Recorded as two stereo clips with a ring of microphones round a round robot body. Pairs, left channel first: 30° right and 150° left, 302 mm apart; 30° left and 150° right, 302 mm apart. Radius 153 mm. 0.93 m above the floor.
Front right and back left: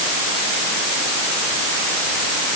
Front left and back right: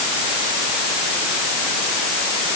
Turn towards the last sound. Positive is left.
No sound to turn to.